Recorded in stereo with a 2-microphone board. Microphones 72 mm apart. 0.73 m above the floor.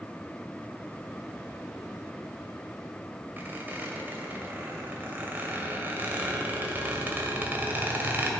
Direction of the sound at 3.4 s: 25° right (ahead or behind).